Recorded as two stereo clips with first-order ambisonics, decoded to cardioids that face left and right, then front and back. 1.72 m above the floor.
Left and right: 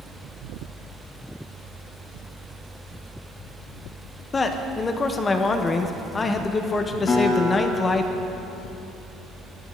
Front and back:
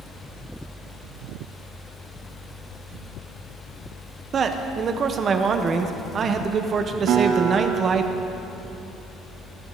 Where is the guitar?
155° left, 2.5 m.